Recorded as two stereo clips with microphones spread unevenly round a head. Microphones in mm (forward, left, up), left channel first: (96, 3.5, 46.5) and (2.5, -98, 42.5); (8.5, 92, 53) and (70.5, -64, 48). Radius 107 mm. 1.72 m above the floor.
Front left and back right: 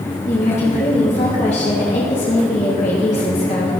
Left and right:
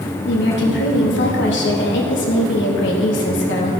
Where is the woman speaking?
105° left, 2.5 m.